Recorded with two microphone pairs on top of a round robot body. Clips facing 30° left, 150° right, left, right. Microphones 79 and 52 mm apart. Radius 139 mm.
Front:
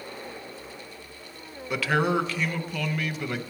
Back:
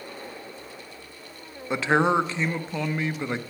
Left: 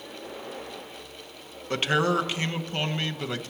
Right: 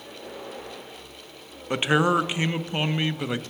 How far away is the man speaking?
About 0.8 m.